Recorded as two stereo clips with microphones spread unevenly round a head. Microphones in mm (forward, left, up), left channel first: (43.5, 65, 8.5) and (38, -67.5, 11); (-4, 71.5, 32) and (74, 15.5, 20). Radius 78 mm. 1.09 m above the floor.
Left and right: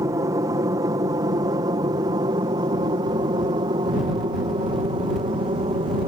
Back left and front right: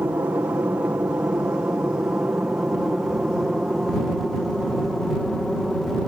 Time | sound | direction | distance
0.0 | an aircraft | 75° right | ?